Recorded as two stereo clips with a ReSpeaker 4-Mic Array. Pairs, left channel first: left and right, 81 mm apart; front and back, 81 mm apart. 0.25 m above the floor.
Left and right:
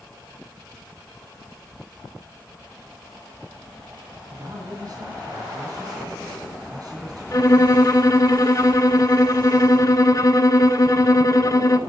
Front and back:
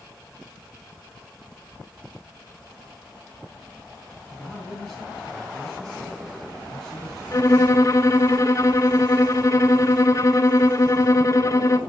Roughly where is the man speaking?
Right.